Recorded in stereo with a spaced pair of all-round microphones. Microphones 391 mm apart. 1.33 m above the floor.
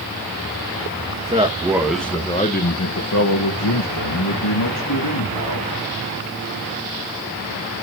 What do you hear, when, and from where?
1.2 s a man speaking: 20° right (ahead or behind), 2.5 m; by 5.7 s 75° left (ahead or behind), 4 m